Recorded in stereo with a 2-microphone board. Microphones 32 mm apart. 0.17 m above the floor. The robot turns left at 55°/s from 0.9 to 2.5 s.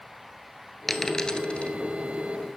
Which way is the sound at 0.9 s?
10° left (ahead or behind).